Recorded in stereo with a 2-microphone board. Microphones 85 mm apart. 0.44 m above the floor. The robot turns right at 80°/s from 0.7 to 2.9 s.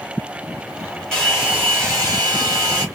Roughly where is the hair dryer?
Behind.